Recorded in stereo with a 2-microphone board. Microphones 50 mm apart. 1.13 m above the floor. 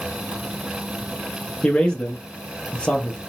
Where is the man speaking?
20° left (ahead or behind), 0.8 m.